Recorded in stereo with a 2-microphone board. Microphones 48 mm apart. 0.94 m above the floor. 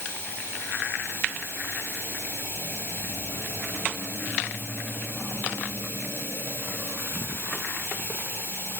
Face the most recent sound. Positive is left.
turn(degrees=50)  # may be behind; listen again after turning